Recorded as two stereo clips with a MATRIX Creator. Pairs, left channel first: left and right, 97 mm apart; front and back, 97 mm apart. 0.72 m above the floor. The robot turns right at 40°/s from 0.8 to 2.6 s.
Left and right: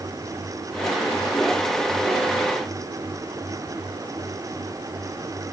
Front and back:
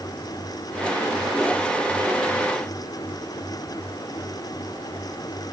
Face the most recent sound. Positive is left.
No sound to turn to.